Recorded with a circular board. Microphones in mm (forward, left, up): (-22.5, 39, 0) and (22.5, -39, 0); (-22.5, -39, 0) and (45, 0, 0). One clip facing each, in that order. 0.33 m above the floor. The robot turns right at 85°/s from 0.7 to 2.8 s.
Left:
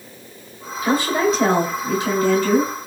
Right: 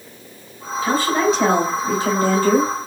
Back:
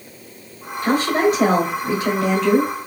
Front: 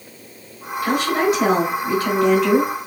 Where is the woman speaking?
165° left, 1.5 m; by 2.7 s 30° right, 1.5 m.